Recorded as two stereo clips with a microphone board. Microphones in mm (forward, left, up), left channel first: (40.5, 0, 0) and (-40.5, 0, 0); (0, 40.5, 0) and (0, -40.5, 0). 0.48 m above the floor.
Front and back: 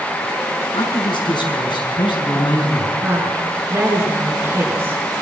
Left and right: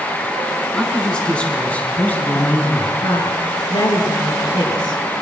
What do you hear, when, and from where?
0.7 s a man speaking: 10° left, 6 m; by 2.9 s 30° left, 6 m
3.0 s a woman speaking: 120° left, 7 m